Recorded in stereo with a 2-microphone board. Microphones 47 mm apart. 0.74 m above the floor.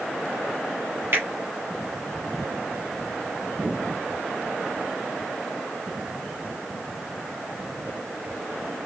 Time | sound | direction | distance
1.1 | a finger snap | 60° right (ahead or behind) | 1.7 m